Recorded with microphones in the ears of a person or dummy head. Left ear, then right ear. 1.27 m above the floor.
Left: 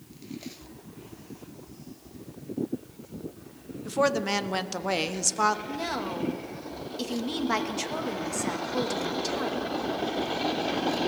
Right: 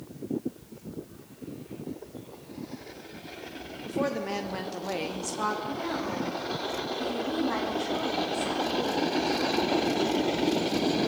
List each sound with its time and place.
3.9 s a woman speaking: 30° left (ahead or behind), 0.6 m
5.7 s a woman speaking: 85° left, 1.5 m